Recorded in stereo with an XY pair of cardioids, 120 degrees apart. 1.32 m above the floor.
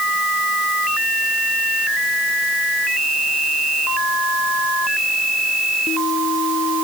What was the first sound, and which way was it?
Only background noise.